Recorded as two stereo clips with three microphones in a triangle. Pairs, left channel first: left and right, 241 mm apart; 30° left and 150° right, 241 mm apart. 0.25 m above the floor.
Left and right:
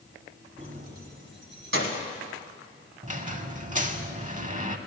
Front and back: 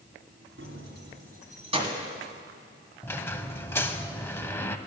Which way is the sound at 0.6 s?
145° right.